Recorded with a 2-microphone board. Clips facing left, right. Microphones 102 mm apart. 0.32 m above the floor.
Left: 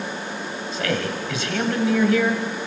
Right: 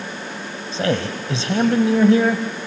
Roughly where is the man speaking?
Right.